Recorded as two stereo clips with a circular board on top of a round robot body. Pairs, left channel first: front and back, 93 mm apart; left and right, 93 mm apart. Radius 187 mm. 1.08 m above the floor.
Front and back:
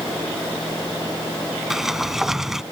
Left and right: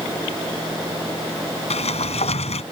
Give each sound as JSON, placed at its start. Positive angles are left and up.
{"t": 1.7, "sound": "a sliding door", "azimuth_deg": 95}